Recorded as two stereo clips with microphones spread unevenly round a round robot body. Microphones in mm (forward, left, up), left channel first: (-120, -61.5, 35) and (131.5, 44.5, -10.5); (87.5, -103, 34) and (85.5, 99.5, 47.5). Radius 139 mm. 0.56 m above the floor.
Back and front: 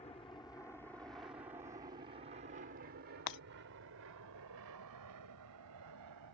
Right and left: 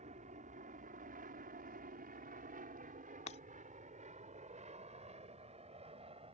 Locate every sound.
0.0 s an aircraft: 135° left; by 6.3 s 30° left
3.3 s breaking glass: 145° right